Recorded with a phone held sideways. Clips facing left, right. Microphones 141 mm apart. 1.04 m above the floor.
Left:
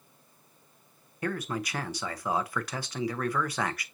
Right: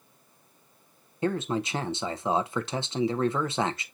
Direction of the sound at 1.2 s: 25° right (ahead or behind).